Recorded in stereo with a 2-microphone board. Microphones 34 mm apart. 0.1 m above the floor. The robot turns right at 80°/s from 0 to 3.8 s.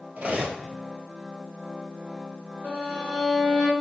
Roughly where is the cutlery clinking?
Right.